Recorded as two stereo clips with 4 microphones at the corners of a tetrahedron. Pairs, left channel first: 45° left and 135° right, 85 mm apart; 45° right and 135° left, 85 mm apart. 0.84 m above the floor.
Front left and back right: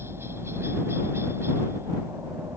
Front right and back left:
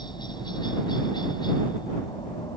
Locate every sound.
0.0 s a helicopter: 75° right